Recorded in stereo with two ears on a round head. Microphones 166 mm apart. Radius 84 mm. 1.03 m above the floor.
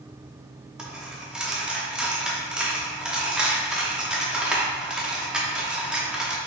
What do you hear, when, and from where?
0.8 s a dropped coin: 5° right (ahead or behind), 0.6 m